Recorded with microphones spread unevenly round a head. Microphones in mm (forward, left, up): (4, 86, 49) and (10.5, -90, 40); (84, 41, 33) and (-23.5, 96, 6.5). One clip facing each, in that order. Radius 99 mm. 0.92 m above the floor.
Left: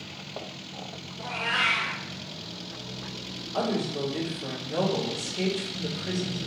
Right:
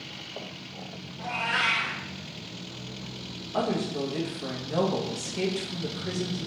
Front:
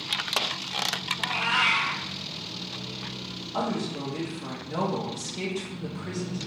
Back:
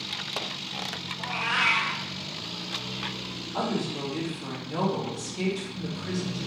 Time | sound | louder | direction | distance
1.2 | a cat meowing | right 1 dB, front 1 dB | 40° right | 2 m
3.5 | a woman speaking | even, even | 90° right | 1.3 m